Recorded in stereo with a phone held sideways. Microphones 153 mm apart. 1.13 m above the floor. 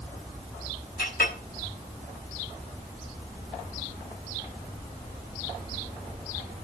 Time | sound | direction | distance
1.0 | a clink | 85° left | 5.5 m